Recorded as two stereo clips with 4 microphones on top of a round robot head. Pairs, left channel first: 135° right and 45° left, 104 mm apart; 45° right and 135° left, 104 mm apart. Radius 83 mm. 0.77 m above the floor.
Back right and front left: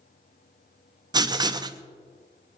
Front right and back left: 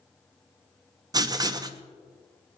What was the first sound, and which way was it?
Writing, 90° left.